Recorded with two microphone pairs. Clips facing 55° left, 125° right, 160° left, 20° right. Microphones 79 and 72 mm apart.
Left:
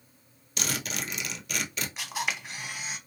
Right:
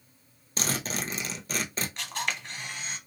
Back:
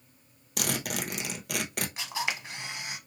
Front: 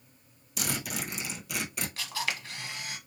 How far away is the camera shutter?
About 0.8 m.